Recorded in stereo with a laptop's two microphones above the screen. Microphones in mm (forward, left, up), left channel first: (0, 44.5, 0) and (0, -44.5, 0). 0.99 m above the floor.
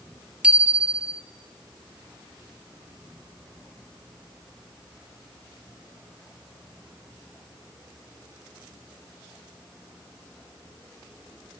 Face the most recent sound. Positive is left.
turn(degrees=-15)  # may be behind; listen again after turning